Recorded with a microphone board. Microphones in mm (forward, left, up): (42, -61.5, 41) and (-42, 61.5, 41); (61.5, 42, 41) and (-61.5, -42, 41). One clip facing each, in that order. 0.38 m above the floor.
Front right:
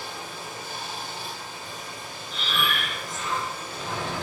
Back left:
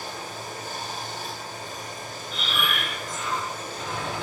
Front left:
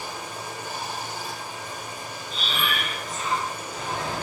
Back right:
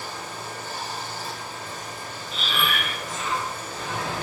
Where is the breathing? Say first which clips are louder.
Front right 1 dB, back right 2 dB; 5° right, 1.4 m.